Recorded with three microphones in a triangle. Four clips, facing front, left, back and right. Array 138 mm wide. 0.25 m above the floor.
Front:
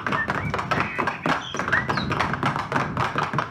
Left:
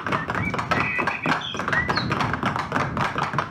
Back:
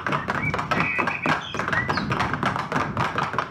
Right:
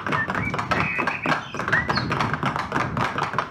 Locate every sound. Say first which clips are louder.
0.1 s a bird: even, even; 45° right